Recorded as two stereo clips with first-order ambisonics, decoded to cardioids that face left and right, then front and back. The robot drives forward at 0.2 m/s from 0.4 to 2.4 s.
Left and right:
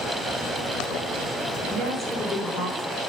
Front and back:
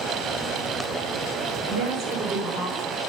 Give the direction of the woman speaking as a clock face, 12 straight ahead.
7 o'clock.